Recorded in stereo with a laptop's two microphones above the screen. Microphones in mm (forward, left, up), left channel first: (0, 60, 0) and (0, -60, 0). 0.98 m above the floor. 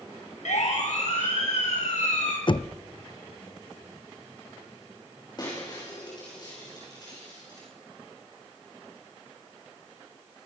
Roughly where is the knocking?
Left.